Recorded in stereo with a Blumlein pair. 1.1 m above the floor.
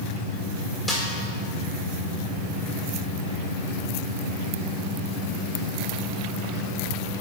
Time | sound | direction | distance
0.9 | a snare drum | 5° left | 1.9 m